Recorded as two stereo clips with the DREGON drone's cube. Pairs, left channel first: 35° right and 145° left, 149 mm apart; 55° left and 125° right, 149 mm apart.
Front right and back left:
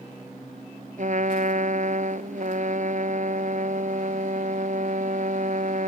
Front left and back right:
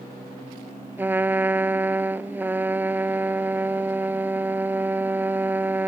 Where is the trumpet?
160° left.